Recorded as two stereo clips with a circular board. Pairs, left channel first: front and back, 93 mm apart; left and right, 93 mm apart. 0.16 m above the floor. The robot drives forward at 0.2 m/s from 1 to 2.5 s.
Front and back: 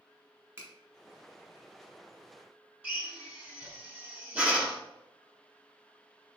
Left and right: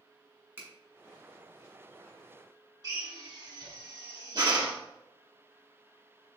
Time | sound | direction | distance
0.6 | a finger snap | 140° right | 1.3 m
2.8 | a drill | 110° right | 0.9 m